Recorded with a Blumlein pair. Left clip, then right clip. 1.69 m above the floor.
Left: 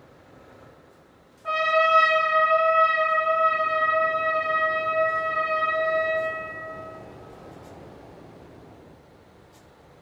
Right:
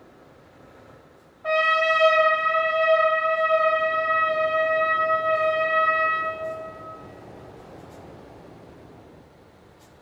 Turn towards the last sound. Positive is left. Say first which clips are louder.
# right 1 dB
turn(degrees=-40)